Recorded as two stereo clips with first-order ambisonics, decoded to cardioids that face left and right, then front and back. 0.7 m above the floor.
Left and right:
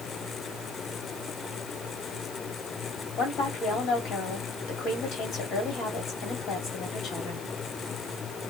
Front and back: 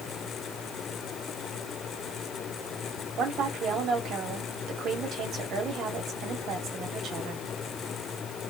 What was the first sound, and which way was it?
A woman speaking, 135° left.